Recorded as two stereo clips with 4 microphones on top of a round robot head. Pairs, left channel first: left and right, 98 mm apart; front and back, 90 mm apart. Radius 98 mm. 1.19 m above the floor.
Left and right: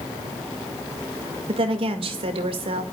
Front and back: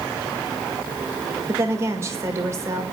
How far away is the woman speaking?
About 2 m.